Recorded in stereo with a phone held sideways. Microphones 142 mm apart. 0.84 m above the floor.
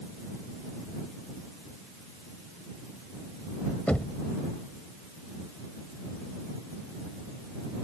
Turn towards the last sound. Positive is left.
turn(degrees=10)  # may be behind; listen again after turning